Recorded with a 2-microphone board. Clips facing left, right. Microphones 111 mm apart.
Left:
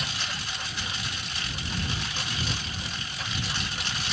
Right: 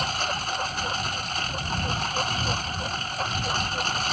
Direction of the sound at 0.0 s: 50° right (ahead or behind).